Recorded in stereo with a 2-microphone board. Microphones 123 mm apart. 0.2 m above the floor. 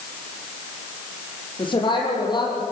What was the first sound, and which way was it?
A woman speaking, 35° left (ahead or behind).